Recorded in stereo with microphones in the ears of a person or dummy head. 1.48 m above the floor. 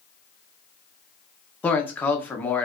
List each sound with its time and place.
1.6 s a man speaking: 10° left (ahead or behind), 0.5 m